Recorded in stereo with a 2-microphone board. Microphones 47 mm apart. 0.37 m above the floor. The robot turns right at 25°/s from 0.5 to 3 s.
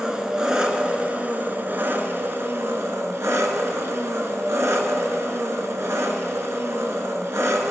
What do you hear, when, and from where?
0.0 s an engine running: 165° right, 1.2 m; by 7.7 s 100° right, 1.2 m